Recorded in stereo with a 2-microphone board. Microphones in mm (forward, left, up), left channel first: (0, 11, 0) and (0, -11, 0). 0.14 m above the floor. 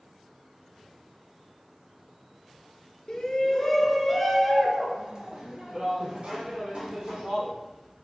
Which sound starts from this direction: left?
A shout, at 3.1 s.